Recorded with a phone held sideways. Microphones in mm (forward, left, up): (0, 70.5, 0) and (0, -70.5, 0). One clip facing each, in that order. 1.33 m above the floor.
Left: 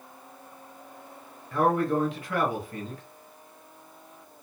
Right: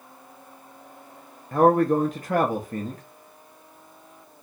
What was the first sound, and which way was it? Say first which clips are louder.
A man speaking: right 6 dB; 45° right (ahead or behind).